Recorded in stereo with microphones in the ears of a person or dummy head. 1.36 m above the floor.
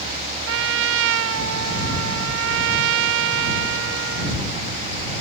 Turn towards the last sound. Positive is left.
turn(degrees=-75)  # may be behind; listen again after turning